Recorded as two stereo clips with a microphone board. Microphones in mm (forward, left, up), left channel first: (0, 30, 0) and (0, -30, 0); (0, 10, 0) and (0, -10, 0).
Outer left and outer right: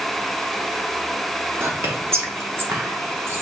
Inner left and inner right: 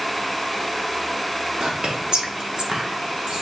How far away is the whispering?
About 0.9 m.